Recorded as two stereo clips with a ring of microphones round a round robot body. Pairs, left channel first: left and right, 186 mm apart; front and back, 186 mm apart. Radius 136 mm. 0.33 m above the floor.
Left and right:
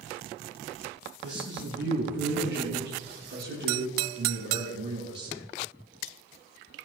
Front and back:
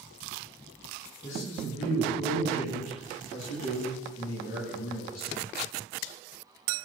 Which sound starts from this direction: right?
A man speaking, at 1.2 s.